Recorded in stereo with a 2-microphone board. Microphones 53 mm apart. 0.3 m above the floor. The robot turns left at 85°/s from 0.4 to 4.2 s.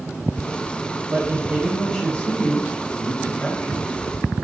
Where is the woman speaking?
120° right, 1.2 m; by 3.9 s 5° left, 1.2 m.